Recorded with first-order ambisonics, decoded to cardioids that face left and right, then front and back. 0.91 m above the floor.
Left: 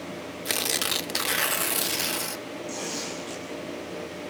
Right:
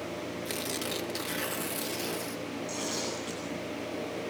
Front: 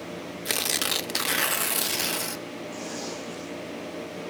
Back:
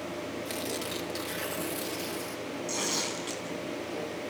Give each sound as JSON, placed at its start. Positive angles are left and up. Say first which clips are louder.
{"t": 0.5, "sound": "tearing paper", "louder": "left 10 dB, front 12 dB", "azimuth_deg": 40, "distance_m": 0.6}
{"t": 2.7, "sound": "tearing paper", "louder": "left 1 dB, back 5 dB", "azimuth_deg": -175, "distance_m": 9.5}